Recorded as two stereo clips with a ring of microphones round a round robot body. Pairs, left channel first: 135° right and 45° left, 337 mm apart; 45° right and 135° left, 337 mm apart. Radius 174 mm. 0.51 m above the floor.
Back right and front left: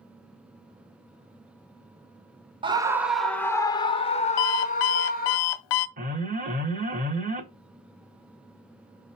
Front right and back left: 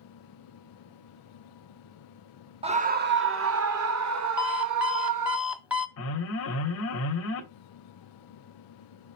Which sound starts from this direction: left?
A scream, at 2.6 s.